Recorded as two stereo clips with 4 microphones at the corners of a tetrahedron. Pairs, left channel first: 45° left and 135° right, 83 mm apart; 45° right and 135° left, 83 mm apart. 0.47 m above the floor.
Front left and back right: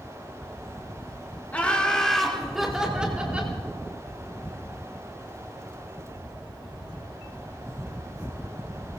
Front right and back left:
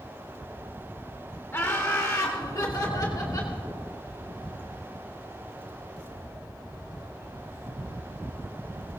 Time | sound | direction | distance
1.5 | laughter | 10° right | 1.2 m